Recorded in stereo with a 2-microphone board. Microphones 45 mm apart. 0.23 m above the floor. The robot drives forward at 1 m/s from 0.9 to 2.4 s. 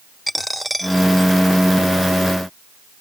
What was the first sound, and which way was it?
A dropped coin, centre (ahead or behind).